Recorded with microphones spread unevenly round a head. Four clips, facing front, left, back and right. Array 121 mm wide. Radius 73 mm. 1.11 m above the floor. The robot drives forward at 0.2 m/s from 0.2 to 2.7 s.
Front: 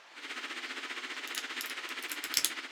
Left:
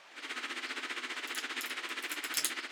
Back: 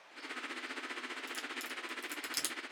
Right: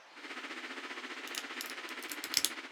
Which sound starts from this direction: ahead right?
A crack, at 1.3 s.